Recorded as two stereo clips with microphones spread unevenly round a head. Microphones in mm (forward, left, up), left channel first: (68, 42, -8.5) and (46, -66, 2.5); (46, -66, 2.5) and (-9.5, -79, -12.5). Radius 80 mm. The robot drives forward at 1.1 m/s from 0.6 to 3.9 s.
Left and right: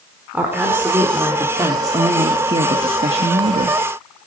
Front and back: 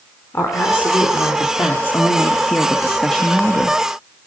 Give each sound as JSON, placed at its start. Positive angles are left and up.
{"t": 0.3, "sound": "a woman speaking", "azimuth_deg": -30, "distance_m": 4.0}